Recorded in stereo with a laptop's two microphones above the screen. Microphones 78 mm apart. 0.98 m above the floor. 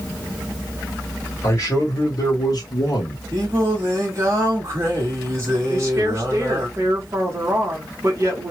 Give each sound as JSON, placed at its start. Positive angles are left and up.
{"t": 1.4, "sound": "a man speaking", "side_deg": 30, "distance_m": 1.7}
{"t": 3.3, "sound": "singing", "side_deg": -40, "distance_m": 1.3}
{"t": 5.7, "sound": "a woman speaking", "side_deg": -35, "distance_m": 1.1}